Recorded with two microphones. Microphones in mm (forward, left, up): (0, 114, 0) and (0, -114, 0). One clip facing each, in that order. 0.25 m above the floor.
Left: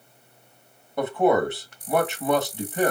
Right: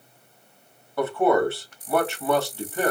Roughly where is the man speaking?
Centre.